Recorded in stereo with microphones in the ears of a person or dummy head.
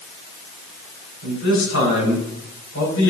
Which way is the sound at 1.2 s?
75° left (ahead or behind).